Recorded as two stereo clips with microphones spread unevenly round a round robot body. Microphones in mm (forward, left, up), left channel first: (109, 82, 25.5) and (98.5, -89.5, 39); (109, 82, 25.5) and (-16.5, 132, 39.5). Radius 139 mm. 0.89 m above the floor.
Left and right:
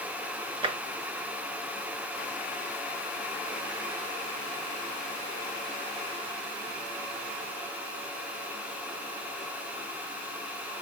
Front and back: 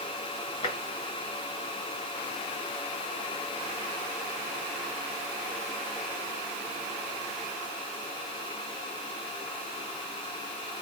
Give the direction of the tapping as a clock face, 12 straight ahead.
2 o'clock.